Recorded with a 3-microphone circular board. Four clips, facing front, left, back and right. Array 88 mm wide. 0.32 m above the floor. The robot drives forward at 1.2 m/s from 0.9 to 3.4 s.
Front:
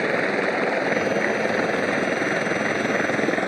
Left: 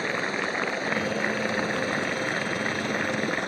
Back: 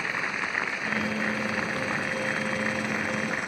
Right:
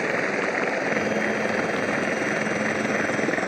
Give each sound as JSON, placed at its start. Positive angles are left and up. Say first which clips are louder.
{"t": 0.0, "sound": "a helicopter", "louder": "right 4 dB, front 10 dB", "azimuth_deg": -20}